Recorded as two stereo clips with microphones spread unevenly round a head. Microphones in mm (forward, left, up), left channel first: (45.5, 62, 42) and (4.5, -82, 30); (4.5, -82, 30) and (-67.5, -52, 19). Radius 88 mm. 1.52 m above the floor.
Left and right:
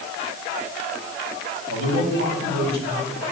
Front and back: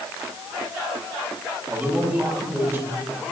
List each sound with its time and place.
1.7 s a man speaking: 135° right, 9 m